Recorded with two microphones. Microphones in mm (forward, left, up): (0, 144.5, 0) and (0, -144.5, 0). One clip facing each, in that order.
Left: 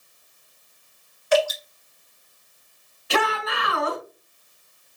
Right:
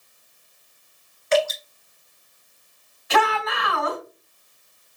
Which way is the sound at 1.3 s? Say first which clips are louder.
Even; 25° right (ahead or behind).